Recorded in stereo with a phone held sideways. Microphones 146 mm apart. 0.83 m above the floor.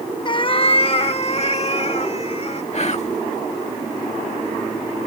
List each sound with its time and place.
0.2 s a cat meowing: 35° left (ahead or behind); by 2.6 s 50° left (ahead or behind)
2.7 s whispering: 50° left (ahead or behind)